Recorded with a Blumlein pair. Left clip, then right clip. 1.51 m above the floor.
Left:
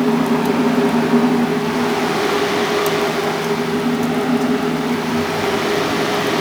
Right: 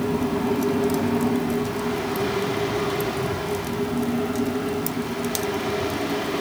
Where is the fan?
50° left, 0.9 m.